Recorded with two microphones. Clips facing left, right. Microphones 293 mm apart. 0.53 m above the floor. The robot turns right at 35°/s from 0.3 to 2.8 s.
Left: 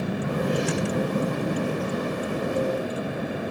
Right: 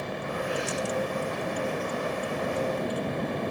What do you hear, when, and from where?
0.0 s a vehicle: 85° left; by 3.5 s 5° left (ahead or behind)